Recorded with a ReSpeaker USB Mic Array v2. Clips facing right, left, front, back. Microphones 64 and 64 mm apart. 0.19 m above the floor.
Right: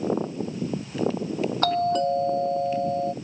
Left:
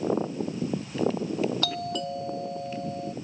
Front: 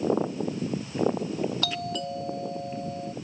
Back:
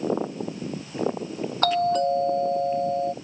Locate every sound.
1.6 s a doorbell: 135° right